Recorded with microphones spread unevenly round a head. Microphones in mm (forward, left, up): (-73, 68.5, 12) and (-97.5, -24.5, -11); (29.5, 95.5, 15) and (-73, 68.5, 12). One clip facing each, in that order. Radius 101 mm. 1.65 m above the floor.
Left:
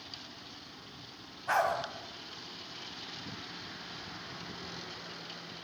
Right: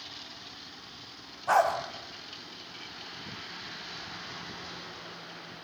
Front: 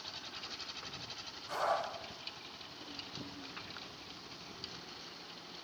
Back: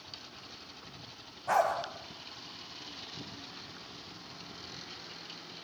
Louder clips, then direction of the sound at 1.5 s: Right 5 dB, back 7 dB; 160° right.